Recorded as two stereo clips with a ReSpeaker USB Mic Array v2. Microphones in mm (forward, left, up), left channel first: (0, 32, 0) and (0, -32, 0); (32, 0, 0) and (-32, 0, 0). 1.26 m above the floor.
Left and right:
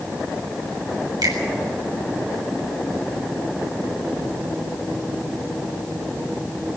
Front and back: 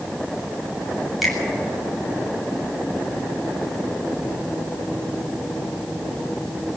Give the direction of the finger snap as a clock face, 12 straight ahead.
3 o'clock.